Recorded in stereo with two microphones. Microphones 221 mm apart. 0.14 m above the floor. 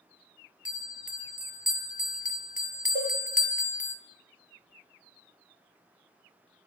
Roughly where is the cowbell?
Right.